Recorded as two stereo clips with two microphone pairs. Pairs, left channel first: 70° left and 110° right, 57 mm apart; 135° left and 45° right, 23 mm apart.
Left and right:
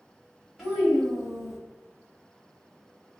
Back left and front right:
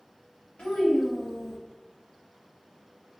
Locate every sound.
0.6 s a child speaking: 150° left, 1.1 m